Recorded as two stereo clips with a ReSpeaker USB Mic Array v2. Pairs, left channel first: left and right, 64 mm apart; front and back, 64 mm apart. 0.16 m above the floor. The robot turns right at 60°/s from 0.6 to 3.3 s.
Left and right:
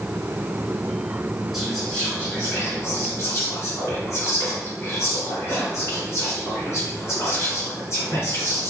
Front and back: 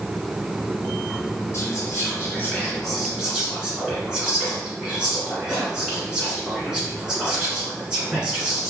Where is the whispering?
Straight ahead, 1.9 m; by 8.7 s 105° left, 1.9 m.